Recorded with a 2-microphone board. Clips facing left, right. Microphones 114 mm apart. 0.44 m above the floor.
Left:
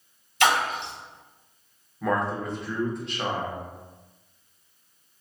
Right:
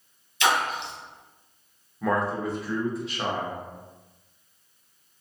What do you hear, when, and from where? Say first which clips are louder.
0.4 s a splash: left 2 dB; 70° left (ahead or behind), 1.1 m
2.0 s a man speaking: right 1 dB; 5° right (ahead or behind), 0.7 m